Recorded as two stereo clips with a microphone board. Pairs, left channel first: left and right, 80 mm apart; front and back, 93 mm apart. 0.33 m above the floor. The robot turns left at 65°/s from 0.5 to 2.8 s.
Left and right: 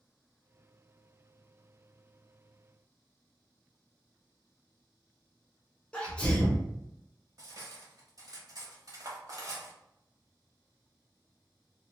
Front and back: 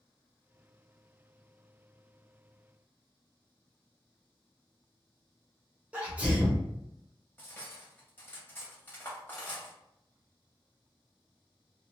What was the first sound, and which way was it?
A sneeze, 135° left.